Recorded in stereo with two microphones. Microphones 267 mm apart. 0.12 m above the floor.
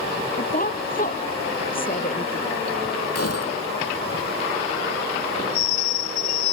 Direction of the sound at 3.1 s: 65° left (ahead or behind).